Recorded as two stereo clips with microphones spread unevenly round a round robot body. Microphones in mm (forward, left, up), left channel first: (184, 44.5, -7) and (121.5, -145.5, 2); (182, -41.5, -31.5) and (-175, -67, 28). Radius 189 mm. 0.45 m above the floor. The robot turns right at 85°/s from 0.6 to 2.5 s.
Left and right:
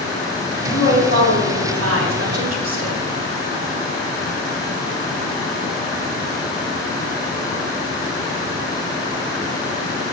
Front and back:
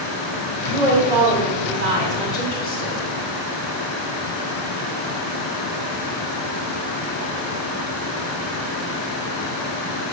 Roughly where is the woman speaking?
Behind left.